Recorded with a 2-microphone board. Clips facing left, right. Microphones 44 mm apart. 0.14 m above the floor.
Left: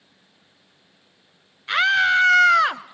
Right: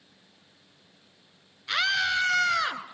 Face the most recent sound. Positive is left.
turn(degrees=50)  # may be behind; listen again after turning